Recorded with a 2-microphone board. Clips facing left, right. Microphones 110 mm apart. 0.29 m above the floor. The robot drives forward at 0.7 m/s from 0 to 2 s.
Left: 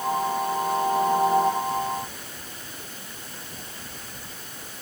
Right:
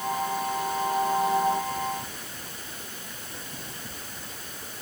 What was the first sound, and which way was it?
Only background noise.